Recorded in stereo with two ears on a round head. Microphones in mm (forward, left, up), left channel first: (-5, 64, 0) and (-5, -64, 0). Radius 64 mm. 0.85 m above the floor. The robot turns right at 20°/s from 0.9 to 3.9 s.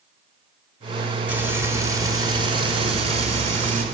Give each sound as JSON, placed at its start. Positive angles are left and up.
{"t": 1.3, "sound": "frying", "azimuth_deg": -165, "distance_m": 3.0}